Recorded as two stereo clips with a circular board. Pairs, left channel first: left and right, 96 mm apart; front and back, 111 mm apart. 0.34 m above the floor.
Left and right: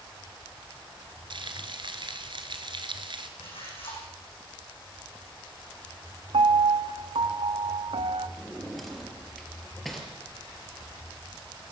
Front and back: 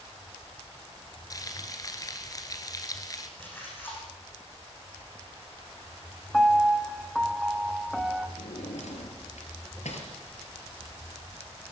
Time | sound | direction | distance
1.3 | frying | 55° right | 1.9 m
3.4 | a splash | 70° left | 7.5 m
6.3 | a piano | 90° right | 1.1 m
8.4 | a drawer | straight ahead | 4 m